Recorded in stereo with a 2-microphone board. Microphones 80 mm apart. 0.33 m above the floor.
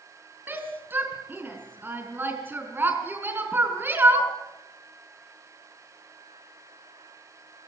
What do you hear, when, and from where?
0.5 s a shout: 25° right (ahead or behind), 4.5 m